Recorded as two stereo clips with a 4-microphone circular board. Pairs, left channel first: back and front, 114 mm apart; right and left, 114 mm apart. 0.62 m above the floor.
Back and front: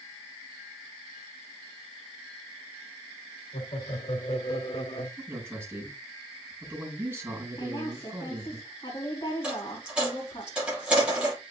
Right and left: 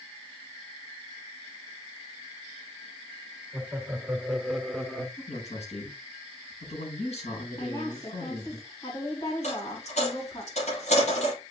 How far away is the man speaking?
About 8 m.